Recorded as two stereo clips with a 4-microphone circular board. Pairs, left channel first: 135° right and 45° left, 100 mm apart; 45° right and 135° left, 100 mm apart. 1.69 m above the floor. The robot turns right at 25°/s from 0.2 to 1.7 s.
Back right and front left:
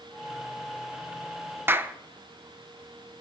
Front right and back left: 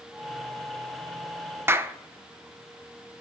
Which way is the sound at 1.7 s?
90° left.